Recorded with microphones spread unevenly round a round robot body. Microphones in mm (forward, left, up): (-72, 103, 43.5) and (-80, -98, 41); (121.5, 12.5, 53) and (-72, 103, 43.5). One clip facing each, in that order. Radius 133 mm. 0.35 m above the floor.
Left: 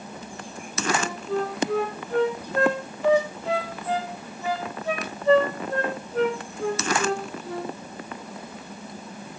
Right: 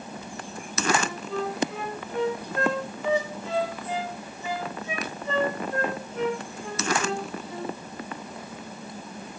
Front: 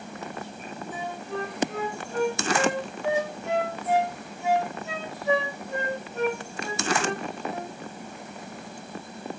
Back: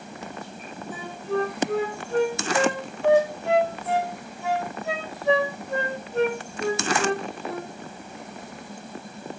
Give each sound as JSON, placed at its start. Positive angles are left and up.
{"t": 0.9, "sound": "a flute", "azimuth_deg": 120, "distance_m": 4.0}